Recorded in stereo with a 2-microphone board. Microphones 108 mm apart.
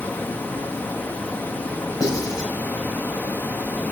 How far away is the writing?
About 5 m.